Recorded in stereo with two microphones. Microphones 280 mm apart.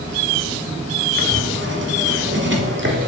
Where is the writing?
40° right (ahead or behind), 1.2 m.